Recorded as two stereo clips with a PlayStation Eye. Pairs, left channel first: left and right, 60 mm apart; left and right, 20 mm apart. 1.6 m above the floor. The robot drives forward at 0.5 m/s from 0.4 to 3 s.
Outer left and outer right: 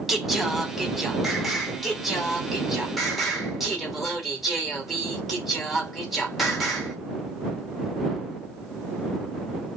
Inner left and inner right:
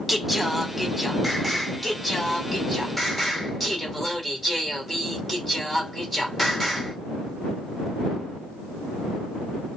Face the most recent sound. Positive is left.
turn(degrees=0)  # may be behind; listen again after turning